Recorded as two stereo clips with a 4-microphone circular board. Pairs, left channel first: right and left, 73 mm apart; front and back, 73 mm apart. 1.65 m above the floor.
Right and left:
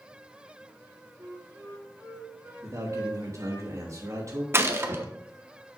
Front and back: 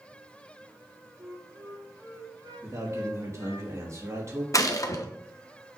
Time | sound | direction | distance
1.2 | a flute | 150° left | 4 m
2.6 | a man speaking | 135° left | 3 m
4.5 | a gunshot | 40° left | 1.1 m